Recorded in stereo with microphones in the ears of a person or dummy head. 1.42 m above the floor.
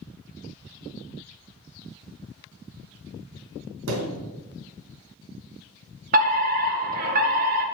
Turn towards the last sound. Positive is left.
turn(degrees=-45)  # may be behind; listen again after turning